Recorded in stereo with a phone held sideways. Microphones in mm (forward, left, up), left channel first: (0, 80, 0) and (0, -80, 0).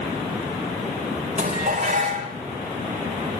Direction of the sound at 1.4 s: 50° right (ahead or behind).